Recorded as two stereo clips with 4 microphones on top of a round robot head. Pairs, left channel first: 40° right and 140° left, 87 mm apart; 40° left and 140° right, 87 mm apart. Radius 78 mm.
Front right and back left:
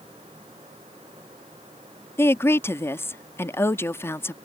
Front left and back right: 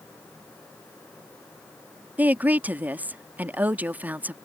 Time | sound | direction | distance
2.2 | a woman speaking | 80° right | ?